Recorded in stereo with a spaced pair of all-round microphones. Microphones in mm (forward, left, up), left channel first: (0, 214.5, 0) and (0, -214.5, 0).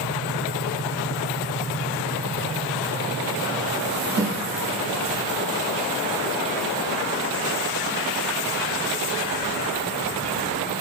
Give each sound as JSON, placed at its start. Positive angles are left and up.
{"t": 4.2, "sound": "a snare drum", "side_deg": -25, "distance_m": 1.1}